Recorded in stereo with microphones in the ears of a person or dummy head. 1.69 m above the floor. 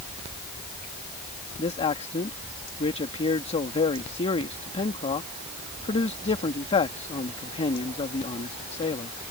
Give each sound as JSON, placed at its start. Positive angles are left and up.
{"t": 1.6, "sound": "a man speaking", "side_deg": 30}